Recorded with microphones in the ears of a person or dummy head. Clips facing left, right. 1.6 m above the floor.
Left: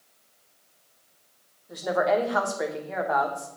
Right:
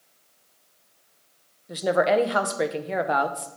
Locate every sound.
1.7 s a woman speaking: 40° right (ahead or behind), 0.7 m